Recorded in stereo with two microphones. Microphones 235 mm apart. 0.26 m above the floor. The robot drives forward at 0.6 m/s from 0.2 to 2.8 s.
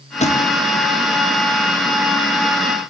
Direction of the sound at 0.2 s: 25° left (ahead or behind).